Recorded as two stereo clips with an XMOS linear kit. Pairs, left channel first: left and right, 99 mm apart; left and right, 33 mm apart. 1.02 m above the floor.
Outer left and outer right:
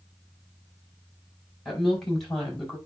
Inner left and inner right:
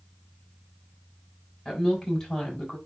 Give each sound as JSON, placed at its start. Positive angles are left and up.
{"t": 1.6, "sound": "a woman speaking", "side_deg": 0, "distance_m": 6.0}